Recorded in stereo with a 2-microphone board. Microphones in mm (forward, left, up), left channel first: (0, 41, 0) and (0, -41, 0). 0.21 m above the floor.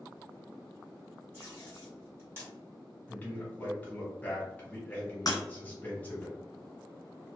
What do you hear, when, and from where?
1.3 s tape being pulled: 30° right (ahead or behind), 1.8 m
3.1 s a man speaking: 20° left (ahead or behind), 1.1 m
5.3 s breaking glass: 50° left (ahead or behind), 1.1 m